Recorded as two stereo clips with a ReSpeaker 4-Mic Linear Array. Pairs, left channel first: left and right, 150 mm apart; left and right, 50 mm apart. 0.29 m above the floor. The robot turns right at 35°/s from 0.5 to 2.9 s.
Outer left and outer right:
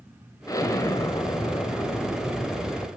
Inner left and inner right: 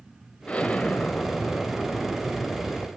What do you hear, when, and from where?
0.5 s an explosion: 25° left (ahead or behind), 1.1 m; by 2.9 s 5° left (ahead or behind), 1.1 m